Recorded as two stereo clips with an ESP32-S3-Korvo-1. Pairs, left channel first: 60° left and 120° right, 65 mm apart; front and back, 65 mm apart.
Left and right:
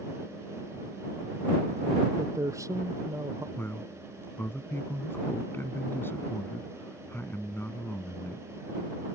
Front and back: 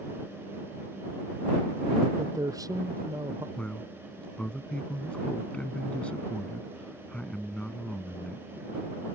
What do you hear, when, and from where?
2.2 s a man speaking: 155° right
3.6 s a man speaking: 60° left